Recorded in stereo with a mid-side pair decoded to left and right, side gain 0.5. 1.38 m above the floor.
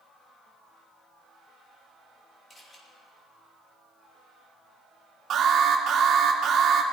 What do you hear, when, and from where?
2.5 s a camera shutter: 25° left, 5 m
5.3 s an alarm: 50° right, 2.5 m